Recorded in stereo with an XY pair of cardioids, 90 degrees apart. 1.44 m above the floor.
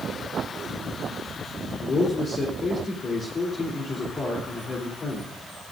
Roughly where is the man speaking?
Ahead left.